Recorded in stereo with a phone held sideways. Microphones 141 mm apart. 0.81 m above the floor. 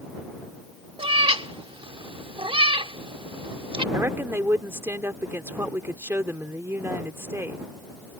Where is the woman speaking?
20° right (ahead or behind).